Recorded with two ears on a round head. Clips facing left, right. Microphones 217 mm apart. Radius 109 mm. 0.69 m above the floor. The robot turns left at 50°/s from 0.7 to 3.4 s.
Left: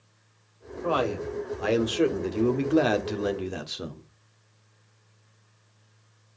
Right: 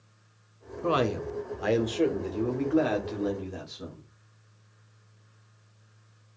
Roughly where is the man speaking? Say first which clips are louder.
Even; behind right.